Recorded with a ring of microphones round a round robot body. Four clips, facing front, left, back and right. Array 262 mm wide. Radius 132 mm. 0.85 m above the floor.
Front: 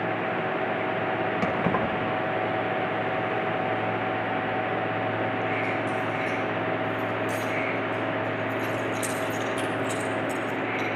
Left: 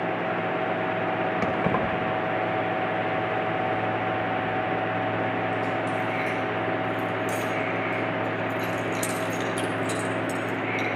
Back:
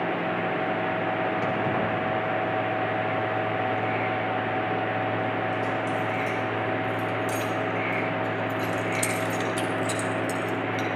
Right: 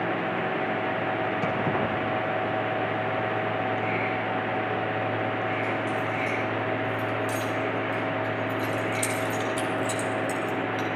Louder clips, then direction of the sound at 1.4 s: Left 2 dB, front 1 dB; 50° left.